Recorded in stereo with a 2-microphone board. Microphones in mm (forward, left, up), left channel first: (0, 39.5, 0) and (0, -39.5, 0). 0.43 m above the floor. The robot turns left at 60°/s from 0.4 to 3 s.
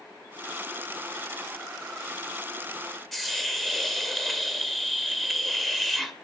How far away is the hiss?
About 2.0 m.